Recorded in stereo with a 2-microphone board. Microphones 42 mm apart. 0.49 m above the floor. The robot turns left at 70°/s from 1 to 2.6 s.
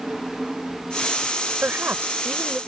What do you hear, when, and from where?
1.6 s a woman speaking: 85° right; by 2.6 s 150° right